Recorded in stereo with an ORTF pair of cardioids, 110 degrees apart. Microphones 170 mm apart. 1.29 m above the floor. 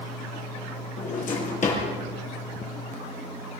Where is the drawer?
45° left, 8 m.